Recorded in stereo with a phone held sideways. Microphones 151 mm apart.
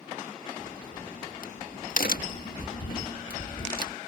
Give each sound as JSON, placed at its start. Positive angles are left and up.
{"t": 0.6, "sound": "a crack", "side_deg": 75}